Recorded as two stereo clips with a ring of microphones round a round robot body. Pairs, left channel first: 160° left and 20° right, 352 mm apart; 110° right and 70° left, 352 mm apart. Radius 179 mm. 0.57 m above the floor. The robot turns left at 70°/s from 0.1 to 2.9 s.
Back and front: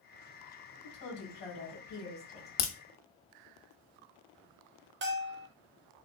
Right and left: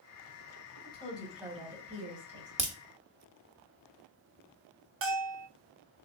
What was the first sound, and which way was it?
A woman speaking, 170° right.